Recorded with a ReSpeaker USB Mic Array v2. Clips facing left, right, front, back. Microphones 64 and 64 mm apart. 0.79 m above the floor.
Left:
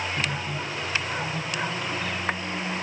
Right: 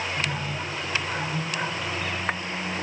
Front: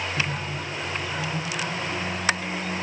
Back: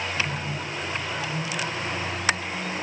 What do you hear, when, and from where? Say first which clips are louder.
0.2 s a microwave: even, even; 30° left, 3.5 m